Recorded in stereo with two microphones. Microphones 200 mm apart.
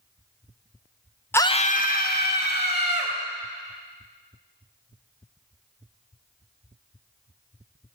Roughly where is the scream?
Centre.